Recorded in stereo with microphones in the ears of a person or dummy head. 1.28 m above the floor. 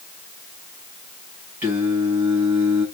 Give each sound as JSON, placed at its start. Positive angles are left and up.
{"t": 1.6, "sound": "singing", "side_deg": -10, "distance_m": 1.6}